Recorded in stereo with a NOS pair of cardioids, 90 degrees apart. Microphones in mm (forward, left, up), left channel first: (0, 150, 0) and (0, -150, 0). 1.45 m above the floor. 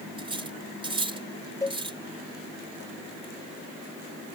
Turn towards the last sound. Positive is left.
turn(degrees=10)